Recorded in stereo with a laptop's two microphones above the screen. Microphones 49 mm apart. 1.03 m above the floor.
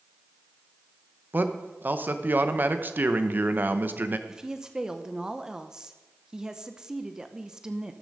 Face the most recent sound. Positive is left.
turn(degrees=-15)  # may be behind; listen again after turning